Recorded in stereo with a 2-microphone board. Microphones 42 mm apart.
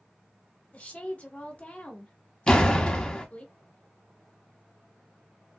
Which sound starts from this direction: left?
A woman speaking, at 0.7 s.